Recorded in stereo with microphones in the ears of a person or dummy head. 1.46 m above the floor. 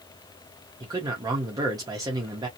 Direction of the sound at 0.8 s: 20° right (ahead or behind).